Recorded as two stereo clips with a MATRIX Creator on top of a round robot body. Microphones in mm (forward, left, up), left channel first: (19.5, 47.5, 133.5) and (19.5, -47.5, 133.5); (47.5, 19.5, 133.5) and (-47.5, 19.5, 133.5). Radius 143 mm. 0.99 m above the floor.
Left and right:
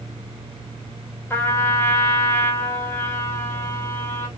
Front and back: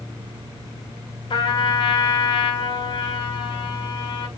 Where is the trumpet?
25° left, 4.5 m.